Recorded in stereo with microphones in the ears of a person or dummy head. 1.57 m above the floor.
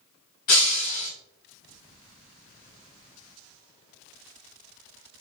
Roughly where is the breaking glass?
Left.